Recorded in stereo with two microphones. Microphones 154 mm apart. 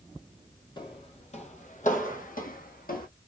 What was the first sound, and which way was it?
Footsteps, 30° left (ahead or behind).